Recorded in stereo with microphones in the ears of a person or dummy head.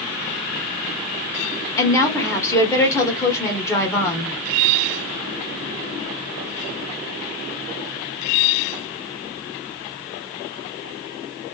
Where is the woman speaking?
20° left (ahead or behind), 1.1 m.